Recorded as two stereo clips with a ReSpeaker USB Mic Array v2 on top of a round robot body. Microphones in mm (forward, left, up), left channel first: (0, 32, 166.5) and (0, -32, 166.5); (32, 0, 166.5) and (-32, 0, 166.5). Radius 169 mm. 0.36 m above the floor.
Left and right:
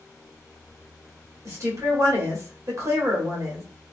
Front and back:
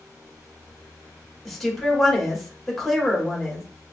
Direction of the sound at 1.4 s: 85° right.